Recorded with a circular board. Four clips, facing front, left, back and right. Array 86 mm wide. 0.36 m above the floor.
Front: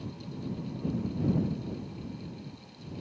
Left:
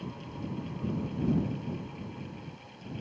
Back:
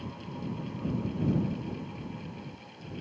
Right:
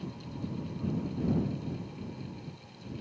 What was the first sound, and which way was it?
Only background noise.